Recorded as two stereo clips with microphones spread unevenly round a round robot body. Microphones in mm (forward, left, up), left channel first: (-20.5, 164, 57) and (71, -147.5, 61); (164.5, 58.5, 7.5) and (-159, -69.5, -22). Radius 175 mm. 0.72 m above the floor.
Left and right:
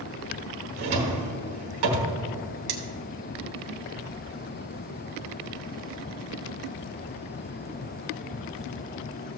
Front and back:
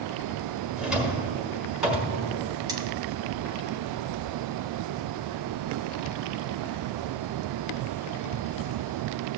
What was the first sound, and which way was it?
A drawer, 70° right.